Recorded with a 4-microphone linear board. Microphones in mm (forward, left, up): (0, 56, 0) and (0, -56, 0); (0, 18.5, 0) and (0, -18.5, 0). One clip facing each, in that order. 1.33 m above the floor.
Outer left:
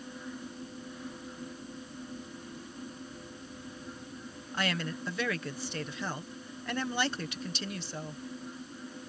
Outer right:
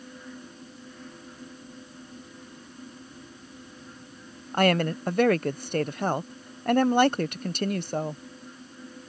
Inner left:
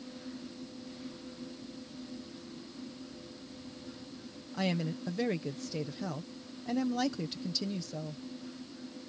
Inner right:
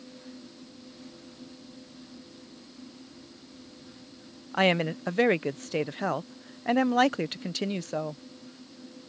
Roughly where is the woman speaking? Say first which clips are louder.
Outer right 11 dB, inner right 9 dB; right.